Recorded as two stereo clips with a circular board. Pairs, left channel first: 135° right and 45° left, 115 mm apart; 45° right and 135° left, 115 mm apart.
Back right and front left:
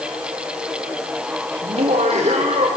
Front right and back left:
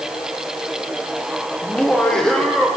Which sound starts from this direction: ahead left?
Laughter, at 1.6 s.